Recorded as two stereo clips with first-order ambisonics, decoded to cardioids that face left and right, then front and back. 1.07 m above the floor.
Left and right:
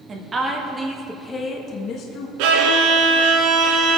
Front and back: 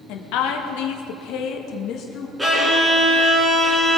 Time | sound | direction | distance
0.1 | a woman speaking | 25° right | 2.0 m
2.4 | a violin | 95° right | 2.5 m